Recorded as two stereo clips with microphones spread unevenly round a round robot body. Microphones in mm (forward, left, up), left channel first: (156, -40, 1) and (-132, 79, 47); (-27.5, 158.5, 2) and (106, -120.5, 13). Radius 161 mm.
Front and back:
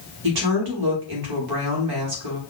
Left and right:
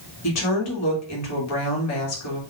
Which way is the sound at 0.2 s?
150° left.